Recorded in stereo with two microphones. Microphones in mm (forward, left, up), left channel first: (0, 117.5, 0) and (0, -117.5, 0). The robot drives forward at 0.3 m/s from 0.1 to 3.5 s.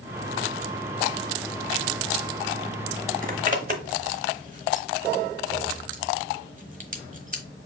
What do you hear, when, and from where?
3.2 s a zipper: 35° right (ahead or behind), 0.8 m